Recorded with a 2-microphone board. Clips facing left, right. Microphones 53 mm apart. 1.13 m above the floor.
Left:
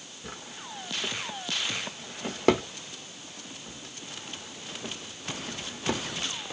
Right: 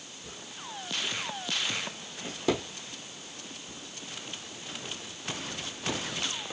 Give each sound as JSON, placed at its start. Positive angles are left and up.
{"t": 0.2, "sound": "a drawer", "side_deg": 55, "distance_m": 1.3}